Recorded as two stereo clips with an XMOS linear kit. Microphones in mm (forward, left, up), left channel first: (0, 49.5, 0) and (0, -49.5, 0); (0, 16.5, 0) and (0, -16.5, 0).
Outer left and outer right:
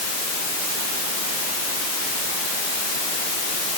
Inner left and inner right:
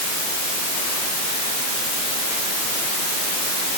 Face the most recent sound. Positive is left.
No sound to turn to.